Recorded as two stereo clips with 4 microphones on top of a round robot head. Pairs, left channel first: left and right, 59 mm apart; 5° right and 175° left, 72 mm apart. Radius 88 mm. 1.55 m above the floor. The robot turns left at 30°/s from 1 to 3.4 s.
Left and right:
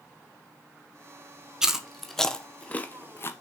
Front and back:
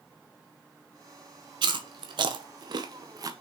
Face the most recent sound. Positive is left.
turn(degrees=140)